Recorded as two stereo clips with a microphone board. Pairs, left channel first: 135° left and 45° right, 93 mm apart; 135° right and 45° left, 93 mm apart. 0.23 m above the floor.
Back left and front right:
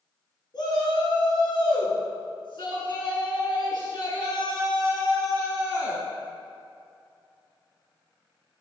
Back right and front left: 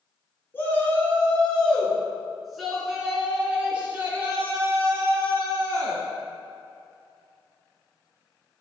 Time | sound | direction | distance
0.5 | a shout | 160° left | 2.5 m